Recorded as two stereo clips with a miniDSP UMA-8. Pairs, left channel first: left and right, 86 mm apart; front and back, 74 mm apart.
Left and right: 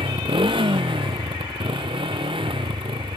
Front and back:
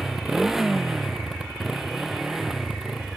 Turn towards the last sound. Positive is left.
turn(degrees=-95)